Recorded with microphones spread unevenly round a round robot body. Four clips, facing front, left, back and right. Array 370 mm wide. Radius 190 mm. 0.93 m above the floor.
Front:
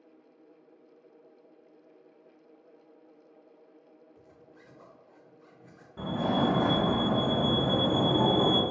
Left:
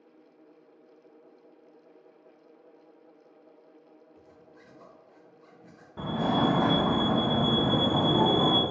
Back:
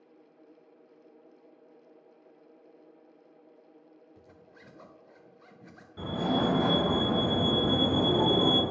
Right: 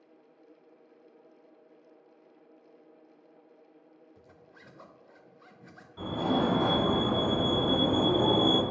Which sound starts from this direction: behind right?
A zipper, at 4.2 s.